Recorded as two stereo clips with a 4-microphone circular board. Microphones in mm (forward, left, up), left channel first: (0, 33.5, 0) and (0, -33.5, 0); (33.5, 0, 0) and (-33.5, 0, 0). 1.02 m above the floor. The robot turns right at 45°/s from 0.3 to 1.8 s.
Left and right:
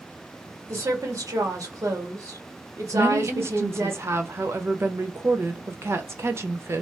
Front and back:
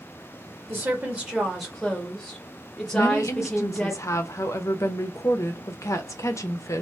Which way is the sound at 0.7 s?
130° right.